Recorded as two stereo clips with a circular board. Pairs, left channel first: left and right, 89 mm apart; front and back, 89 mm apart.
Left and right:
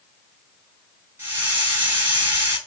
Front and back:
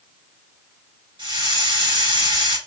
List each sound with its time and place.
1.2 s a hiss: 160° right, 3.5 m